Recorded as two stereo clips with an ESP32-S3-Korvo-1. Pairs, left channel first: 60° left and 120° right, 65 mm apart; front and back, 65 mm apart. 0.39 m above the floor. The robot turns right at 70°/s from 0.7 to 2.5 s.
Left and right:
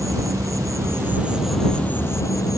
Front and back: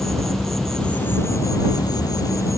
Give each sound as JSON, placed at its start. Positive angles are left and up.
{"t": 0.0, "sound": "an insect", "azimuth_deg": -90}